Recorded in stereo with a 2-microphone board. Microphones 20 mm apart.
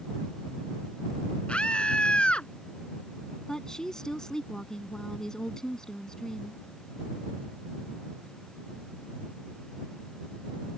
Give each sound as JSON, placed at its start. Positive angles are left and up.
{"t": 1.5, "sound": "a scream", "side_deg": 60}
{"t": 3.5, "sound": "a woman speaking", "side_deg": 30}